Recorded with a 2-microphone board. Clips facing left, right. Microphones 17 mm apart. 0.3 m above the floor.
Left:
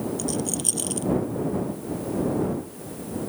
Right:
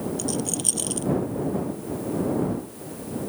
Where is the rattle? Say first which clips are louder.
Even; 5° right (ahead or behind).